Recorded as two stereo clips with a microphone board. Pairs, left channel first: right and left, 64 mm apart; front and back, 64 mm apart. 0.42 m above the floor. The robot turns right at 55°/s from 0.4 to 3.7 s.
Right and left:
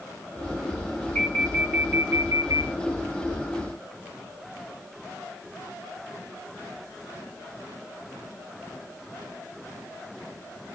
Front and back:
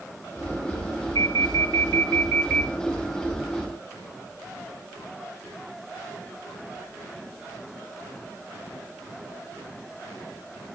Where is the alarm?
20° right, 7.5 m; by 2.7 s 65° left, 7.5 m.